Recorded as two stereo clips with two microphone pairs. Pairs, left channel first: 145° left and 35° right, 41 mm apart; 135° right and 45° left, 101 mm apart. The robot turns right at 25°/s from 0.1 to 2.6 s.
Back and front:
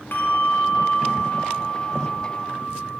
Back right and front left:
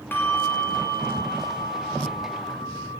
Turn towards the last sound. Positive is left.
turn(degrees=-135)